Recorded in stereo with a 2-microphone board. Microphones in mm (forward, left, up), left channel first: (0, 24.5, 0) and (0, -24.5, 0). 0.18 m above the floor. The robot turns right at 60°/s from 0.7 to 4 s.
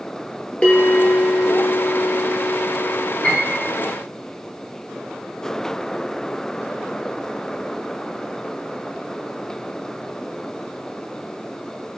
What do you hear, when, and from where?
0.6 s a bell: 20° left, 0.6 m; by 3.1 s 165° left, 0.6 m
3.2 s a piano: 25° left (ahead or behind), 1.9 m; by 3.7 s 45° left (ahead or behind), 1.9 m